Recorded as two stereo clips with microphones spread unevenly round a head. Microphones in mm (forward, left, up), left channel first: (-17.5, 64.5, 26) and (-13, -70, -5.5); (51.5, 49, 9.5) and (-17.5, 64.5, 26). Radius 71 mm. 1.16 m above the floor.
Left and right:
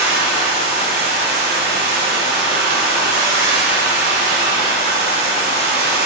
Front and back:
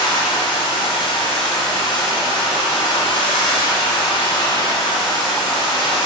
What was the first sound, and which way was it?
Running water, 70° right.